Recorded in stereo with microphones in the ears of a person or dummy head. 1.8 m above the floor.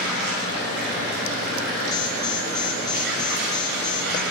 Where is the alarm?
25° left (ahead or behind), 5 m.